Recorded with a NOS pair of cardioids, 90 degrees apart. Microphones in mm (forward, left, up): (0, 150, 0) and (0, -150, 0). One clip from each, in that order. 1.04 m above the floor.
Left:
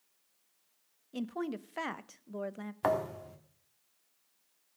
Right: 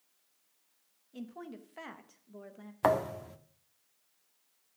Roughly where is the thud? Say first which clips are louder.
Right 3 dB; ahead.